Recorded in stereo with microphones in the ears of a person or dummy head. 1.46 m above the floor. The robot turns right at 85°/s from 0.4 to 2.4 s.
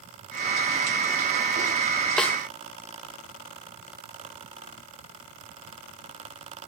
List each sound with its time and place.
2.2 s a snare drum: centre (ahead or behind), 2.0 m; by 2.4 s 15° left (ahead or behind), 2.0 m